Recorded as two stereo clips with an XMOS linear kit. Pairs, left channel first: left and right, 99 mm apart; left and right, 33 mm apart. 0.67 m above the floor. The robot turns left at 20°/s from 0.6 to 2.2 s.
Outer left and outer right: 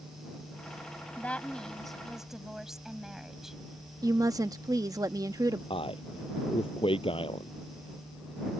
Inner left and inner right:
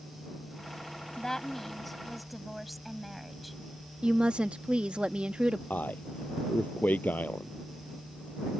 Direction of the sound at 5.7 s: 65° left (ahead or behind).